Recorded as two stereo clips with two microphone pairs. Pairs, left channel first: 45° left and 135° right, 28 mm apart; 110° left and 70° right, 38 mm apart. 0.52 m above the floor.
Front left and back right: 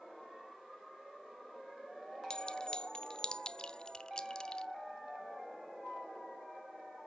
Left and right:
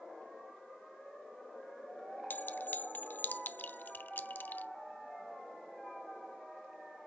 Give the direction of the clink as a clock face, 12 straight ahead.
9 o'clock.